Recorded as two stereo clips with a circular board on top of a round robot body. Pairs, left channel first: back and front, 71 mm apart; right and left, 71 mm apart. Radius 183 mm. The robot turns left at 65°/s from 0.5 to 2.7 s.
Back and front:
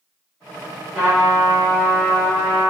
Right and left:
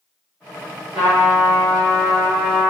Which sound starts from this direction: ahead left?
A trumpet, at 0.9 s.